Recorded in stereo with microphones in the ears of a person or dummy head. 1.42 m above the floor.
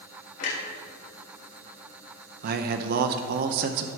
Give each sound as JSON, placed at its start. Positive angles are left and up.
{"t": 0.4, "sound": "a clunk", "side_deg": 60, "distance_m": 3.5}
{"t": 2.4, "sound": "a man speaking", "side_deg": -50, "distance_m": 0.6}